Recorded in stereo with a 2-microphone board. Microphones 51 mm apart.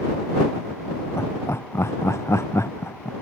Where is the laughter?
60° left (ahead or behind); by 3.1 s 65° left (ahead or behind).